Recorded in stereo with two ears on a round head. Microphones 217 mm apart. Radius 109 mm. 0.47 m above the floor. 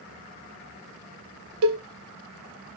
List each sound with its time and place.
1.6 s a cowbell: 85° right, 0.5 m